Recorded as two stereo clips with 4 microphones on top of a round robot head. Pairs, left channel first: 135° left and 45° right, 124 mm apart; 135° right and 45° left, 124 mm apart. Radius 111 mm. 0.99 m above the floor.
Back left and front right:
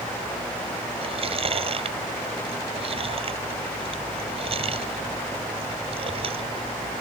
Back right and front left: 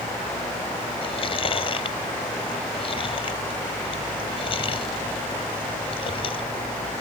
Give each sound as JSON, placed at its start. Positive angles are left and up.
{"t": 1.0, "sound": "chewing", "azimuth_deg": -85}